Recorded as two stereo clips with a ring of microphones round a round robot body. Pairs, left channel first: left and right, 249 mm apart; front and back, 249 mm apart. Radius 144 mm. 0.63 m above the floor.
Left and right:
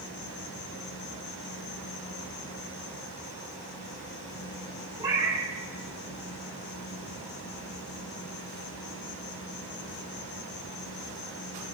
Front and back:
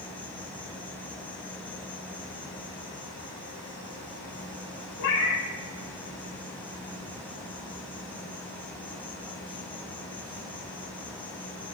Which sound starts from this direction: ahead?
A cat meowing, at 5.0 s.